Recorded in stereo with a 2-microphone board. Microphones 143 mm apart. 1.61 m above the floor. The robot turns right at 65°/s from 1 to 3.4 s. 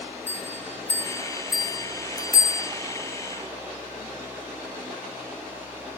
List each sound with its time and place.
0.3 s a bell: 15° left (ahead or behind), 1.6 m